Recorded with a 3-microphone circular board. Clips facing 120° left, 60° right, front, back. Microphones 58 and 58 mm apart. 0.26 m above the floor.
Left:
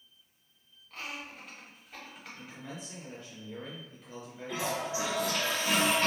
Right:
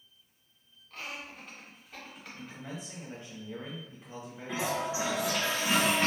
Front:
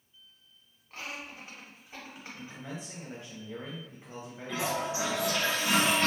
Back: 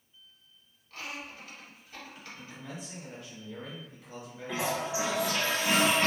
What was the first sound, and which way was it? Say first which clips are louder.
Laughter: even, even; 35° left.